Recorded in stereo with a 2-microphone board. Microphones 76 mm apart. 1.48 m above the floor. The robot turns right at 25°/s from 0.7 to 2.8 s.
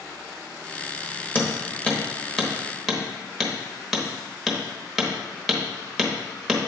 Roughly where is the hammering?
Left.